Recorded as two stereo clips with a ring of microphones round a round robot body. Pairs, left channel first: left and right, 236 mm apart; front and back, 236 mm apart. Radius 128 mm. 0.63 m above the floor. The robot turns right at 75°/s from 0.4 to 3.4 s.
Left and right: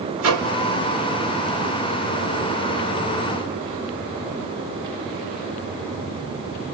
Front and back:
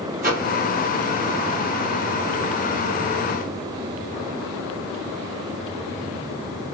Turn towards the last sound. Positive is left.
turn(degrees=105)